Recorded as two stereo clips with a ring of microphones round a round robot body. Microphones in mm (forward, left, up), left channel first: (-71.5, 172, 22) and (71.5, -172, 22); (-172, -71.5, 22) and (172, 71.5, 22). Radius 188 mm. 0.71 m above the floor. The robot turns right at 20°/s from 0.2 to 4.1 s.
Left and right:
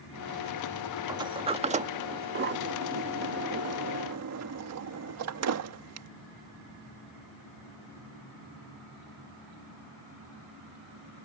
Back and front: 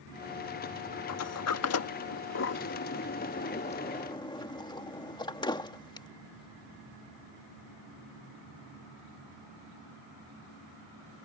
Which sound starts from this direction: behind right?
A sliding door, at 1.1 s.